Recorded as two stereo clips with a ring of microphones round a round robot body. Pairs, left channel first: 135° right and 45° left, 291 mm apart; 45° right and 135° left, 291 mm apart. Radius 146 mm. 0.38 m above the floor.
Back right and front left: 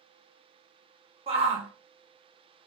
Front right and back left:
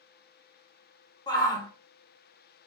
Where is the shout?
10° left, 0.8 m.